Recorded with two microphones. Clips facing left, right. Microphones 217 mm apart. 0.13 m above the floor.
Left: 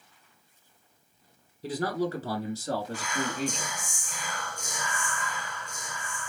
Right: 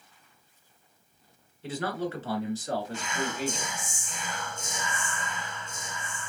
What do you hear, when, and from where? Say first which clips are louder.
1.6 s a man speaking: left 3 dB; 40° left (ahead or behind), 1.3 m; by 3.7 s 35° left (ahead or behind), 1.8 m
2.9 s whispering: left 1 dB; 25° right (ahead or behind), 1.3 m